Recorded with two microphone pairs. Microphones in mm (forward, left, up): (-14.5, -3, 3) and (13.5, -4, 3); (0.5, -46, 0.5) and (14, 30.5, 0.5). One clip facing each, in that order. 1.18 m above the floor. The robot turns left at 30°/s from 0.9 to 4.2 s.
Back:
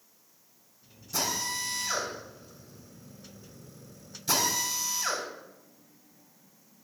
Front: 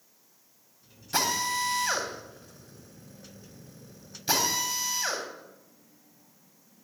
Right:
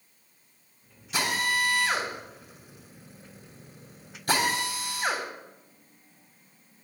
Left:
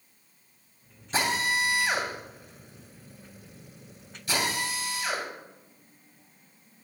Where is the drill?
30° left, 3 m; by 5.2 s 60° right, 3 m.